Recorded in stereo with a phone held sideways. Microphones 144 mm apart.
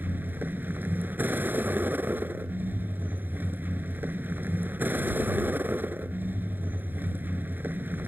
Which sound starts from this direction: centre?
A vehicle, at 0.0 s.